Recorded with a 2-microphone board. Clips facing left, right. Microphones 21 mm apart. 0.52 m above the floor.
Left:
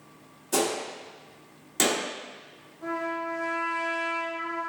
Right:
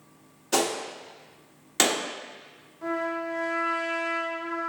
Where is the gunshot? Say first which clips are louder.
Right 1 dB; 35° right (ahead or behind), 0.7 m.